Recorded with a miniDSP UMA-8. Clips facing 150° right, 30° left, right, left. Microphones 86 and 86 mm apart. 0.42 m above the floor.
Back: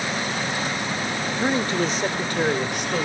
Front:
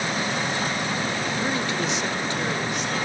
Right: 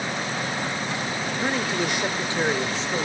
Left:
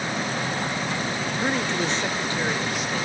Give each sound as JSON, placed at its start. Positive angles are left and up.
{"t": 1.4, "sound": "a man speaking", "azimuth_deg": 170, "distance_m": 0.8}